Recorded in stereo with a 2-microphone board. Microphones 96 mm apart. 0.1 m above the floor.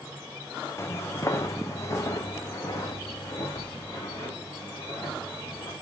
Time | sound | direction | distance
0.8 | footsteps | 30° left (ahead or behind) | 1.0 m